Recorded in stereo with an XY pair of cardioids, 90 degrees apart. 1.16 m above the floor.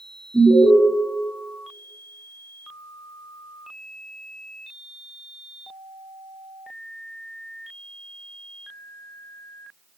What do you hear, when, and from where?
0.3 s an alarm: 10° right, 3 m